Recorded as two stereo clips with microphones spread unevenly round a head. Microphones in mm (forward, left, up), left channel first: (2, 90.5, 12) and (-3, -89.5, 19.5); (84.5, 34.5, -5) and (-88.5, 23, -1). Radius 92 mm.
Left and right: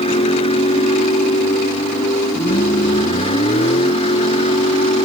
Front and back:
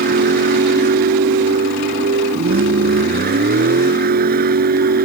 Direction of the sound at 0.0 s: 150° left.